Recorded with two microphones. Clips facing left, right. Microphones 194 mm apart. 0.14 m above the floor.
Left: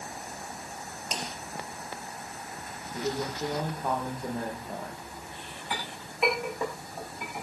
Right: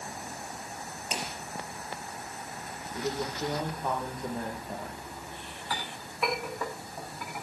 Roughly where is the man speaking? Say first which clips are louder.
Left 1 dB; centre.